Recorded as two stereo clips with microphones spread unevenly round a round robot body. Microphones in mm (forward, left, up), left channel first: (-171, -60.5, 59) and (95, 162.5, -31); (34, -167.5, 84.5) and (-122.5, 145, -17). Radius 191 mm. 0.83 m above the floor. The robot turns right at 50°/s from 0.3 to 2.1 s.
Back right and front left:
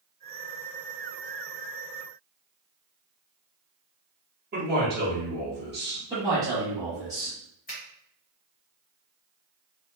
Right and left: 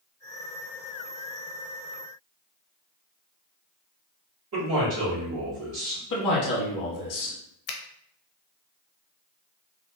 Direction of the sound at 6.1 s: 25° right.